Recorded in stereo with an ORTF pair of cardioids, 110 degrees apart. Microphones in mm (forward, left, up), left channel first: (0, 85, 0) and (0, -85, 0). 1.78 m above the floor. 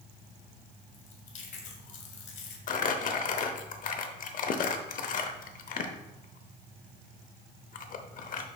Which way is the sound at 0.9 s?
50° left.